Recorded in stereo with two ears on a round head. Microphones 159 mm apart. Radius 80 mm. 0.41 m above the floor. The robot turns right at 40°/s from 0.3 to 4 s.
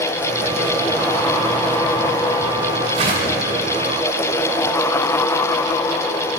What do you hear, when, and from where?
2.9 s a whoosh: 35° right (ahead or behind), 1.7 m; by 3.4 s 25° right (ahead or behind), 1.7 m